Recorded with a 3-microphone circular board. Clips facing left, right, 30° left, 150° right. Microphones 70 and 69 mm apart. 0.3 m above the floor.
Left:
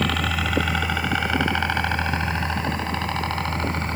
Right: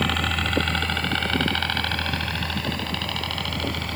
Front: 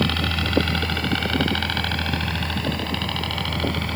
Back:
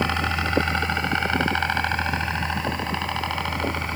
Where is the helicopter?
Straight behind; by 4.0 s 145° left.